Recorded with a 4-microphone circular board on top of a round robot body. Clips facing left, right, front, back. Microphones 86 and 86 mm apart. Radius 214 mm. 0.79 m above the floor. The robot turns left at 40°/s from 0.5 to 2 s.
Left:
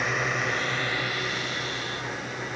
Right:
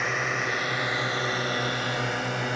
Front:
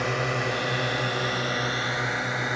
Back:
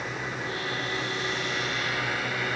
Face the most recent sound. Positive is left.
turn(degrees=-70)